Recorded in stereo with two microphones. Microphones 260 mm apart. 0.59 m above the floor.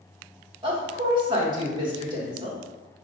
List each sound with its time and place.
0.6 s a woman speaking: 20° right (ahead or behind), 1.3 m